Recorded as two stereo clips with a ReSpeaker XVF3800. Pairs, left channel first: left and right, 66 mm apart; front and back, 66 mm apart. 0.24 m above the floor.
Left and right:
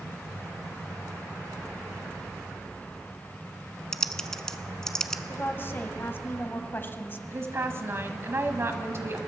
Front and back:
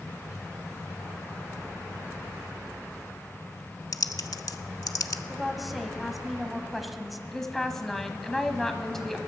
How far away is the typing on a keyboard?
About 0.6 m.